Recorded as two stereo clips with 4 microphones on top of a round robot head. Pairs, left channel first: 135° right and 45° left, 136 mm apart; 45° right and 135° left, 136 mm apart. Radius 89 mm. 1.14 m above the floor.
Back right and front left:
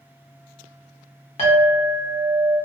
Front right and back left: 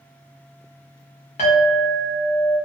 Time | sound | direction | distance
1.4 | a clink | 90° right | 1.0 m